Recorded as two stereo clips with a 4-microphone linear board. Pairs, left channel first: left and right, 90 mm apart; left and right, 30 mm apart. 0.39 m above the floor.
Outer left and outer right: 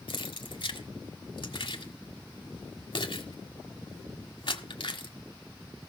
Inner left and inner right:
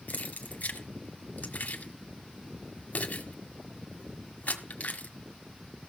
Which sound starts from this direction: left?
Keys jangling, at 0.1 s.